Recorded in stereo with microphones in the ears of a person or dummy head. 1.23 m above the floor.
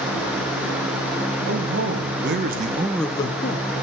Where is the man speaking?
60° right (ahead or behind), 1.8 m; by 3.7 s 50° left (ahead or behind), 0.9 m.